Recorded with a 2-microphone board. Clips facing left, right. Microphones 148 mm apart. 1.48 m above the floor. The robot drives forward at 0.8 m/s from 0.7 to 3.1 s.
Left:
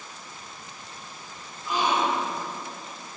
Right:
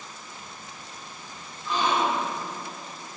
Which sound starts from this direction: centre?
A gasp, at 1.6 s.